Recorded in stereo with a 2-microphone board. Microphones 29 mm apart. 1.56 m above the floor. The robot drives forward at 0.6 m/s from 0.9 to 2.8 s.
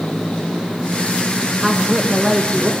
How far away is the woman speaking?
About 1.1 m.